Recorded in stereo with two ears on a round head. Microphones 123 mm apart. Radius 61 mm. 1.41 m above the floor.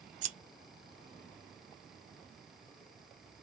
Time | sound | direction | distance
0.2 | scissors | 60° right (ahead or behind) | 0.7 m